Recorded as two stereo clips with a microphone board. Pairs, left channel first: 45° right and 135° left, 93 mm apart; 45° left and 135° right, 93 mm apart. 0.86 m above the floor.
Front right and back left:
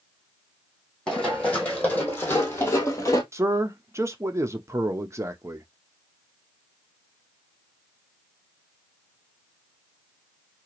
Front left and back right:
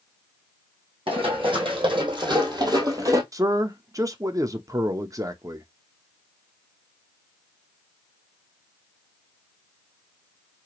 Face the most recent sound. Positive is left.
turn(degrees=-175)